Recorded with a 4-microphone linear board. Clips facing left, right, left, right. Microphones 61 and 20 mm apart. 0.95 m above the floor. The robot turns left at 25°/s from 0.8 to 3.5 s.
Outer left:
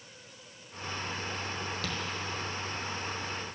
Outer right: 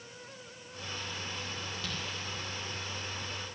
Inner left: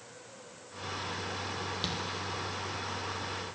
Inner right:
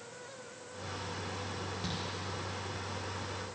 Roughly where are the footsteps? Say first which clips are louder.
Outer left 4 dB, inner left 4 dB; left.